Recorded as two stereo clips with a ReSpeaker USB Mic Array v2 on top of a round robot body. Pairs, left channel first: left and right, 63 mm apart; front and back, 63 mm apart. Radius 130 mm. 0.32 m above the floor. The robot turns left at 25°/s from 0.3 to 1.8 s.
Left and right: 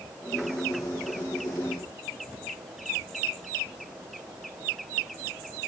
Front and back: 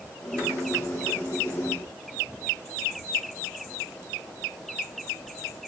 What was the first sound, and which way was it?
Only background noise.